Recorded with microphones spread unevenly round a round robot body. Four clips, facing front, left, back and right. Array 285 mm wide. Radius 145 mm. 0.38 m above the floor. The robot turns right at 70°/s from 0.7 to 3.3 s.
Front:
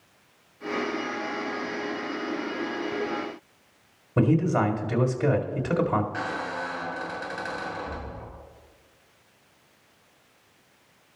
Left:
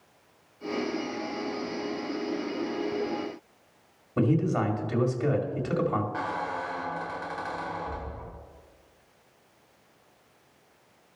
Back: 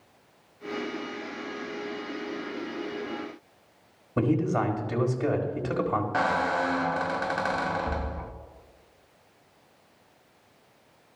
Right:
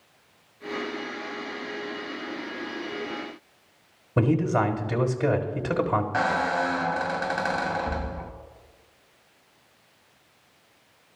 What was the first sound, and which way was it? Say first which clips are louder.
A man speaking: right 2 dB, front 3 dB; 55° right.